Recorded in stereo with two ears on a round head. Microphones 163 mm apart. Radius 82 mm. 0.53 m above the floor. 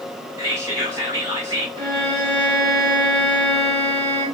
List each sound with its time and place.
0.4 s whispering: 20° right (ahead or behind), 1.5 m
1.8 s a violin: 25° right (ahead or behind), 1.1 m